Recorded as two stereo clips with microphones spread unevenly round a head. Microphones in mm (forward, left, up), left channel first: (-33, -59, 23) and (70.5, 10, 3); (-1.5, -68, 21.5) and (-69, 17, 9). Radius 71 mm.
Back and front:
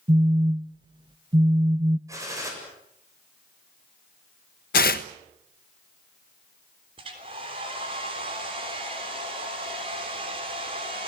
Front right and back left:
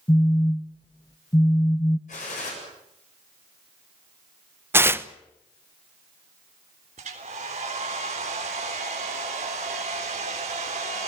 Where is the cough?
I don't hear a cough.